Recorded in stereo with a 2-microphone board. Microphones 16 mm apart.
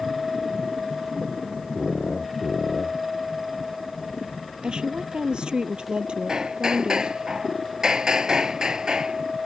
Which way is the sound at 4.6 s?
65° right (ahead or behind).